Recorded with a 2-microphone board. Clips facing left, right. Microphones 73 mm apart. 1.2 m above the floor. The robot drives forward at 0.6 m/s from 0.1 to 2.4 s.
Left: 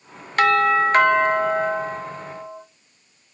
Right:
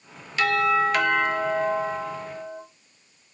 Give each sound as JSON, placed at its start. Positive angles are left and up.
{"t": 0.4, "sound": "a doorbell", "side_deg": 50, "distance_m": 0.6}